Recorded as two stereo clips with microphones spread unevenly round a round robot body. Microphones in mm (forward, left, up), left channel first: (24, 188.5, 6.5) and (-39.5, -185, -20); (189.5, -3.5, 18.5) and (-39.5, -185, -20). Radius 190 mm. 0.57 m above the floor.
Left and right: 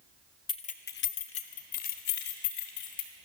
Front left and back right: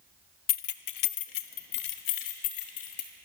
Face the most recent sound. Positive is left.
turn(degrees=35)